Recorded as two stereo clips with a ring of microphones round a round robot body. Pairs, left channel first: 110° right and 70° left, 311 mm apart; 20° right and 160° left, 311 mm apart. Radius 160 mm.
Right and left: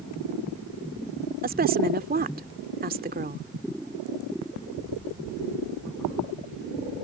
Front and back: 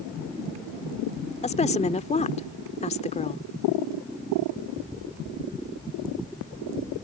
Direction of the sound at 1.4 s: 30° left.